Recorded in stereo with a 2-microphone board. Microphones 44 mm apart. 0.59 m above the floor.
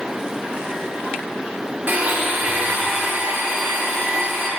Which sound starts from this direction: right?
A blender, at 1.9 s.